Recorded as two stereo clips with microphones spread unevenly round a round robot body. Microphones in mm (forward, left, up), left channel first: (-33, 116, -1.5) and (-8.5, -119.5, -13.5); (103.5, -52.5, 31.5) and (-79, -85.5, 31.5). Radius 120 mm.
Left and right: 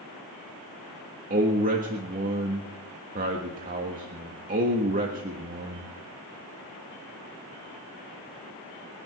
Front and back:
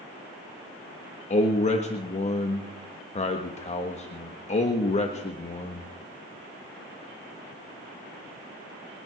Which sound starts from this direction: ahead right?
A man speaking, at 1.3 s.